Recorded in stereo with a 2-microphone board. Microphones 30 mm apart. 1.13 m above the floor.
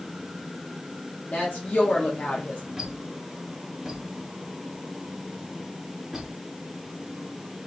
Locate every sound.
1.3 s a woman speaking: 70° left (ahead or behind), 1.0 m
2.8 s a squeak: 5° right (ahead or behind), 2 m